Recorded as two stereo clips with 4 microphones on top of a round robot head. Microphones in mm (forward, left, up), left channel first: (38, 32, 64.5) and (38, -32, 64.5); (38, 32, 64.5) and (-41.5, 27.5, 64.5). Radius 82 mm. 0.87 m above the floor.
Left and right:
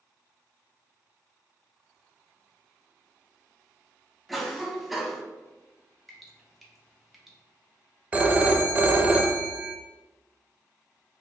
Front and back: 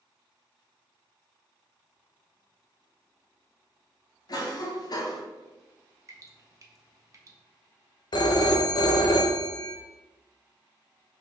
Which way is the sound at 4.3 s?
Straight ahead.